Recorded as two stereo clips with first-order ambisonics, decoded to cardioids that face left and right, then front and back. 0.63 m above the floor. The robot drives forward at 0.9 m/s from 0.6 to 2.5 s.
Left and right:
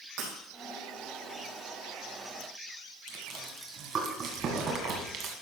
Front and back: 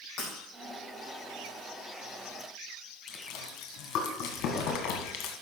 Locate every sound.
0.2 s breaking glass: 45° right, 5 m
3.1 s chewing: 35° right, 2 m